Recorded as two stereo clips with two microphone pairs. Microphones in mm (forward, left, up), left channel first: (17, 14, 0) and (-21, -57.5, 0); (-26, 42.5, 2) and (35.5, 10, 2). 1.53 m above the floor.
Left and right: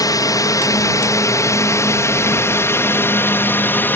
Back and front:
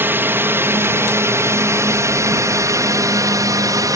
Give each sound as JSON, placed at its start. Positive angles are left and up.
{"t": 0.0, "sound": "a drone", "azimuth_deg": 25}